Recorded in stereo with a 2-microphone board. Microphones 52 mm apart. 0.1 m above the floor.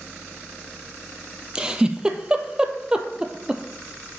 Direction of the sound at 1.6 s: 15° right (ahead or behind).